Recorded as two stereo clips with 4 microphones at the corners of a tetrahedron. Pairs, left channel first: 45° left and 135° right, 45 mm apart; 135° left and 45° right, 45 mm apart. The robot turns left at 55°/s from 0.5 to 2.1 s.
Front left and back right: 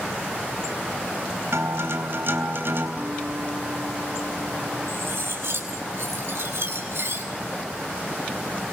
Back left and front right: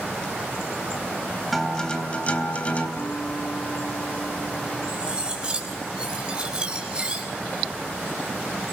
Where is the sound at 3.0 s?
175° left, 1.4 m.